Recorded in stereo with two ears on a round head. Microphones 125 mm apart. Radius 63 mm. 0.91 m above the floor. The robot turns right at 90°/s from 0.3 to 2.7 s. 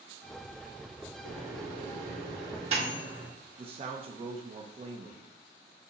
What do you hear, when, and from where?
1.2 s a microwave: 5° right (ahead or behind), 1.7 m; by 3.3 s 45° right (ahead or behind), 1.7 m
3.6 s a man speaking: 40° right (ahead or behind), 0.6 m